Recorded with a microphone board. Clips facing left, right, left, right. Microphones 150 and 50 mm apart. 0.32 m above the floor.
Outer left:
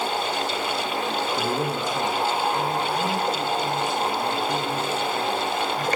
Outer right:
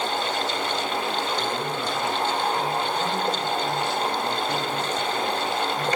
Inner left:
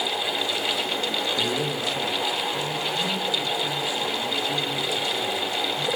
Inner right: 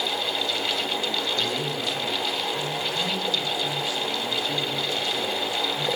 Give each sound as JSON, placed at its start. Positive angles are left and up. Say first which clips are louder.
{"t": 1.4, "sound": "a man speaking", "louder": "outer left 2 dB, inner left 2 dB", "side_deg": 50, "distance_m": 7.5}